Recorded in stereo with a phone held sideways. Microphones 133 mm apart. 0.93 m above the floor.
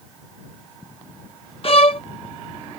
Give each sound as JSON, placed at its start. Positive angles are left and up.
{"t": 1.6, "sound": "a violin", "side_deg": 45}